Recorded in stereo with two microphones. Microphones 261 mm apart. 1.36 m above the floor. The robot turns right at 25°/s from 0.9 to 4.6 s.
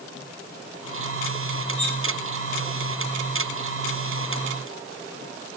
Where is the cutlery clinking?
20° right (ahead or behind), 3.5 m; by 2.0 s 30° right (ahead or behind), 3.5 m.